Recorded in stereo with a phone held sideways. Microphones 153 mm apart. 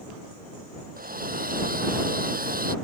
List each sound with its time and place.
1.0 s a hair dryer: 65° right (ahead or behind)